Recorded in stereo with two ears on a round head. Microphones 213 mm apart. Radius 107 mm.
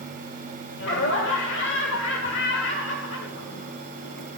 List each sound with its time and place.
0.8 s laughter: 55° left (ahead or behind), 1.6 m